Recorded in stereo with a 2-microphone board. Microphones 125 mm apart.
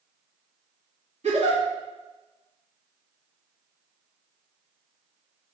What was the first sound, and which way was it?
A giggle, 65° right (ahead or behind).